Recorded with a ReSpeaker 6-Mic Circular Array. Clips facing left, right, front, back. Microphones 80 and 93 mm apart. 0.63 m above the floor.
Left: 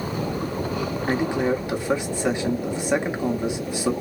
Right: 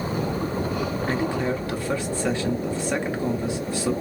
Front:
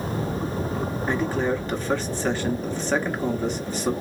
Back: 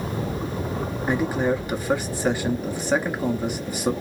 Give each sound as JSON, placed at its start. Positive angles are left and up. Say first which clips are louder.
{"t": 1.1, "sound": "a man speaking", "louder": "left 4 dB, back 2 dB", "azimuth_deg": 125, "distance_m": 0.9}